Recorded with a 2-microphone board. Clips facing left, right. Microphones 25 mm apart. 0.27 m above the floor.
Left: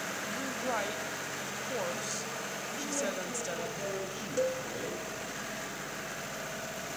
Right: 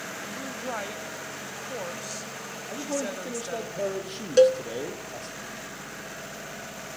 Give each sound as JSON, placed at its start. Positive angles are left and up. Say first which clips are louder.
{"t": 0.3, "sound": "a woman speaking", "louder": "even", "side_deg": 0, "distance_m": 1.1}
{"t": 2.7, "sound": "a man speaking", "louder": "right 5 dB", "side_deg": -85, "distance_m": 9.0}
{"t": 4.4, "sound": "a cowbell", "louder": "right 14 dB", "side_deg": -80, "distance_m": 0.7}